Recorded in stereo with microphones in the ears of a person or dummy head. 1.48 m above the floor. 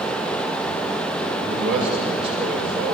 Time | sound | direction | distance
1.4 | a man speaking | 5° right (ahead or behind) | 6 m